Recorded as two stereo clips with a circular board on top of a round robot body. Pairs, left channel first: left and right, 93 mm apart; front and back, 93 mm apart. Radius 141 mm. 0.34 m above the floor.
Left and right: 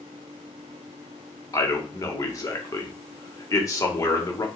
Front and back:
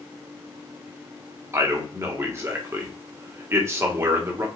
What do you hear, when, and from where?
1.5 s a man speaking: 130° left, 1.7 m